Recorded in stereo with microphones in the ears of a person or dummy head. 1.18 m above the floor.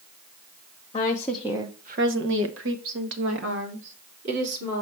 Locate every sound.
0.9 s a woman speaking: 20° left (ahead or behind), 0.8 m; by 4.8 s 65° right (ahead or behind), 3 m